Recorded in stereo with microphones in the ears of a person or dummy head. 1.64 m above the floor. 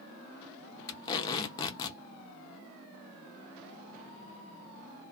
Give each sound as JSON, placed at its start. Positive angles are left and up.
{"t": 0.9, "sound": "tape being pulled", "side_deg": 20, "distance_m": 0.6}